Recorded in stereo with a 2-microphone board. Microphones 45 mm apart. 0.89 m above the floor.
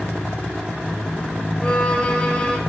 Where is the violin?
20° left (ahead or behind), 4 m.